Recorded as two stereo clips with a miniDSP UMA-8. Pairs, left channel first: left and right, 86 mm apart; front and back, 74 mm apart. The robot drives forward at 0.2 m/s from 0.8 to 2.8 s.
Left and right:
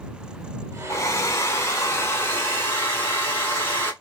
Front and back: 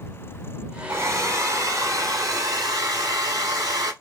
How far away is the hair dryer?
About 0.8 m.